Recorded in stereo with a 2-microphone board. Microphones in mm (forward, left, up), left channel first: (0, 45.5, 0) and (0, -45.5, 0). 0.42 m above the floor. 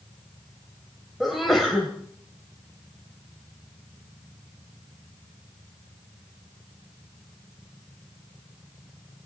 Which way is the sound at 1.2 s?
Centre (ahead or behind).